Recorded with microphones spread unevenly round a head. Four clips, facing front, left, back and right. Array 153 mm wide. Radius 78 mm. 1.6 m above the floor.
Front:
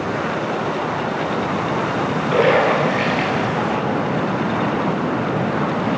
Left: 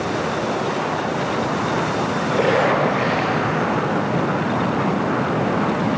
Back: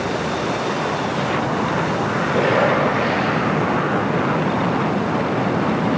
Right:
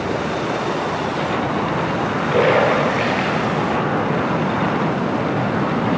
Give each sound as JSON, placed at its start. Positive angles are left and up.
{"t": 2.3, "sound": "a splash", "azimuth_deg": -25, "distance_m": 10.0}